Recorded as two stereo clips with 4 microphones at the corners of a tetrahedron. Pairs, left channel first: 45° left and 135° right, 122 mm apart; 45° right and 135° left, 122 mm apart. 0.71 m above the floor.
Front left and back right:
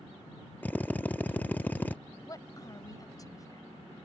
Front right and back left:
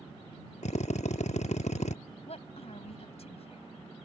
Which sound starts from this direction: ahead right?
A drill, at 0.6 s.